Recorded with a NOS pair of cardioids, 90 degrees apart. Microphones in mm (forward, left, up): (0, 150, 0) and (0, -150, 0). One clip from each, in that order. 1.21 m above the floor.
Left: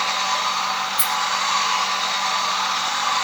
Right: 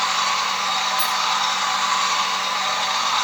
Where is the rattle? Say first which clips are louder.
Right 2 dB; 65° left, 8.5 m.